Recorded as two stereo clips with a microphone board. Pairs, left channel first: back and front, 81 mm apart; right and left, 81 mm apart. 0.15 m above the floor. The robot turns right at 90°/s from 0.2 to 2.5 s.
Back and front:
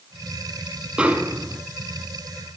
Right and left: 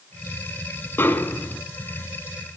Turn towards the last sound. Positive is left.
turn(degrees=75)